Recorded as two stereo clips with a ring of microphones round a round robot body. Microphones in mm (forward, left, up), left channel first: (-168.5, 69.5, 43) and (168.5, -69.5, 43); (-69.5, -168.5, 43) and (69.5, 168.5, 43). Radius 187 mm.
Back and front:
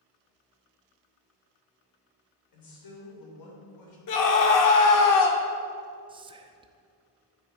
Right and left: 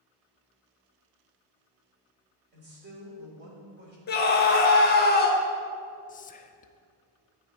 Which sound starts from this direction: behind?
A scream, at 4.1 s.